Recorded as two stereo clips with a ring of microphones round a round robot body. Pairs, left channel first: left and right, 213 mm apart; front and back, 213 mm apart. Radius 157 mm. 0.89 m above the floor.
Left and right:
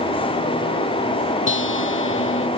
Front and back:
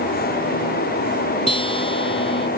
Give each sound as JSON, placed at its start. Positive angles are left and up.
{"t": 1.5, "sound": "a guitar", "azimuth_deg": 65}